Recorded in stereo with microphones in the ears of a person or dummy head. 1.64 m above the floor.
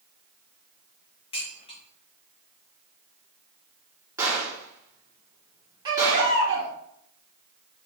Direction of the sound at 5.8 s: 25° right (ahead or behind).